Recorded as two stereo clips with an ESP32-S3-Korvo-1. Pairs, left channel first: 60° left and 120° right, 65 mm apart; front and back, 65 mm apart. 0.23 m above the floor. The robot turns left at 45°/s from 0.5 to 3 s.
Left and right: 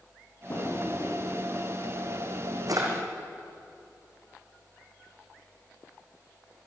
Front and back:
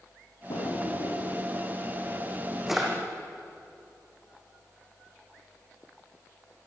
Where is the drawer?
5° left, 5.5 m; by 2.9 s 100° right, 5.5 m.